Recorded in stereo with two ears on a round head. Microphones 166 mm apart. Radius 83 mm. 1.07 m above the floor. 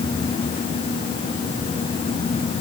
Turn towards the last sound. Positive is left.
No sound to turn to.